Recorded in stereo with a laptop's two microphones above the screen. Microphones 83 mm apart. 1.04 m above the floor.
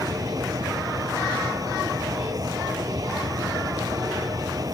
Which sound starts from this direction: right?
A fan, at 0.0 s.